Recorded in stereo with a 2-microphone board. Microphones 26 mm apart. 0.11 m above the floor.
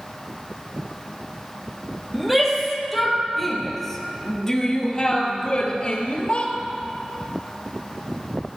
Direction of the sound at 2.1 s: 5° right (ahead or behind).